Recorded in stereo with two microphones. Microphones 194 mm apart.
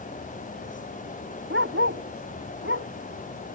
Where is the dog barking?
85° right; by 2.9 s 90° right.